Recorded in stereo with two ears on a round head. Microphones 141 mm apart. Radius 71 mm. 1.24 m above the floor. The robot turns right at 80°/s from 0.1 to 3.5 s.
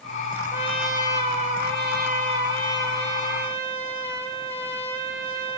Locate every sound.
0.5 s a trumpet: 155° left, 3.5 m; by 5.6 s 35° left, 3.5 m